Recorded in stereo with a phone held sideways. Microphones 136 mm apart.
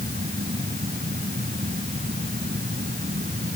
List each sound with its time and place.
0.0 s a fan: 75° right (ahead or behind)